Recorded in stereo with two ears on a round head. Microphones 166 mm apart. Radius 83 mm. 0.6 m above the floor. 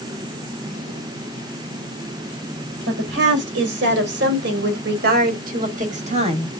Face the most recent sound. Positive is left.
turn(degrees=-30)  # may be behind; listen again after turning